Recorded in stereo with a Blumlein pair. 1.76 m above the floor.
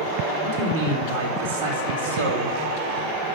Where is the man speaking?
50° right, 4.5 m; by 2.5 s 70° right, 3.5 m.